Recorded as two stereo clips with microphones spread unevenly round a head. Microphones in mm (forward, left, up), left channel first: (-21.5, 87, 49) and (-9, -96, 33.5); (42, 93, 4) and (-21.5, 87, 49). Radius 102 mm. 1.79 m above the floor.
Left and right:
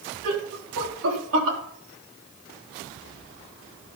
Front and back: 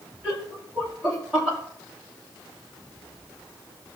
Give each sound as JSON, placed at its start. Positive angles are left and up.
{"t": 0.2, "sound": "laughter", "azimuth_deg": -90, "distance_m": 4.0}